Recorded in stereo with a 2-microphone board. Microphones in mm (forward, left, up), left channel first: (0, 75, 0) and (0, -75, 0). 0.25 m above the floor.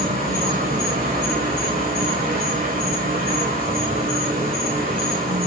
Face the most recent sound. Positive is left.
turn(degrees=-85)